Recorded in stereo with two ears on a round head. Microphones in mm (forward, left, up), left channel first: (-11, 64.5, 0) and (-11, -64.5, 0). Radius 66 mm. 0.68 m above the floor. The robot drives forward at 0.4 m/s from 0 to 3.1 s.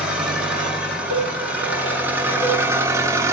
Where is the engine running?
10° right (ahead or behind), 2.0 m; by 3.3 s 20° right (ahead or behind), 0.8 m.